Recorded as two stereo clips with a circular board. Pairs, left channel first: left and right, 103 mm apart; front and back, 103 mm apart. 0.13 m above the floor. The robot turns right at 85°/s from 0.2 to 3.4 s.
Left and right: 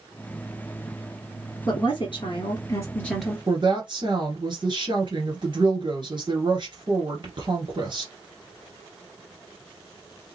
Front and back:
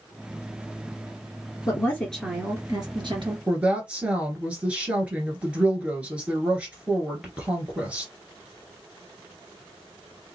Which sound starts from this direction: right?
A woman speaking, at 3.5 s.